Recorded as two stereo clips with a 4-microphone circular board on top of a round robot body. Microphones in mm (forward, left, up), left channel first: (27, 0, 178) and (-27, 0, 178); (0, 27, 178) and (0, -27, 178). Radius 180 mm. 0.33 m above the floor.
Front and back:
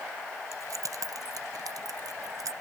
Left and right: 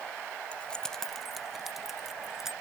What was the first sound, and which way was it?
Keys jangling, 160° left.